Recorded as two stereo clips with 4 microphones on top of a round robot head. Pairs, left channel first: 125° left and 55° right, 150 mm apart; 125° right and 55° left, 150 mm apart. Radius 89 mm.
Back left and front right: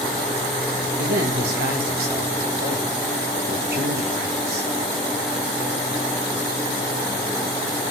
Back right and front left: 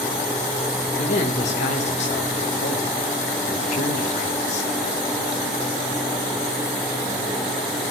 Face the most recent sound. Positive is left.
turn(degrees=-80)